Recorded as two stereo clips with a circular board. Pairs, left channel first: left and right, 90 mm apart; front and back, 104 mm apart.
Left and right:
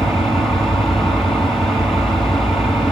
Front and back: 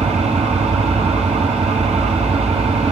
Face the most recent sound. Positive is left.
turn(degrees=180)